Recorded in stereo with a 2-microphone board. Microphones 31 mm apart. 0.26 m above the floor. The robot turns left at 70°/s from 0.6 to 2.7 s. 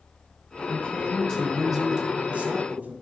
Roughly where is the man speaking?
Ahead left.